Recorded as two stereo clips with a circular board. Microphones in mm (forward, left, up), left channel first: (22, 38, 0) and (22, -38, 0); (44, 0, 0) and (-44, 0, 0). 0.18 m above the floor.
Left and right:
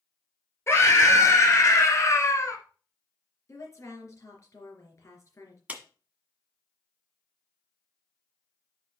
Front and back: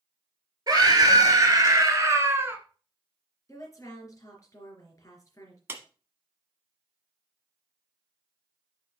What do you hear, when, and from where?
0.7 s a scream: 140° left, 3 m; by 2.6 s 125° left, 1.5 m
3.5 s a woman speaking: 45° left, 3 m
5.7 s a clap: 145° right, 1.3 m